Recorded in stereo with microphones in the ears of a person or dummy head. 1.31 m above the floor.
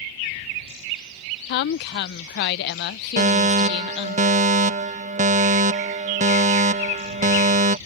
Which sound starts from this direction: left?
A woman speaking, at 1.5 s.